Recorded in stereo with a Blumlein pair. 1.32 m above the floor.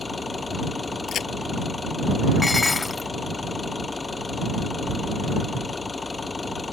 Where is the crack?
30° left.